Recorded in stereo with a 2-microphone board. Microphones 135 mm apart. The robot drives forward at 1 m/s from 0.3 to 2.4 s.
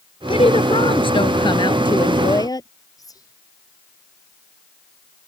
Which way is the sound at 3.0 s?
25° left (ahead or behind).